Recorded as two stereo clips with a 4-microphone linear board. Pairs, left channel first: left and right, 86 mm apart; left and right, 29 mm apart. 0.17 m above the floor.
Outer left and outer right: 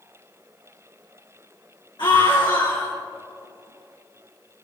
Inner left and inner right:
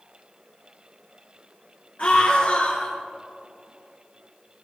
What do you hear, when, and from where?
2.0 s a scream: 60° left (ahead or behind), 2.5 m